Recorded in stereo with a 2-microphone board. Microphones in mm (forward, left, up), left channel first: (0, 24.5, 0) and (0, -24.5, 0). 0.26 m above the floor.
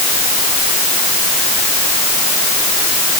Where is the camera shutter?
No camera shutter in this recording.